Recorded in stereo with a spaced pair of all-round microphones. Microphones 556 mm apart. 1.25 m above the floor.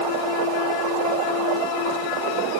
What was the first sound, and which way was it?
Only background noise.